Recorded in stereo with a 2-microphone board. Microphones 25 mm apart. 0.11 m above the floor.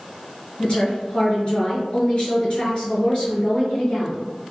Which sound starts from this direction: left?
A woman speaking, at 0.6 s.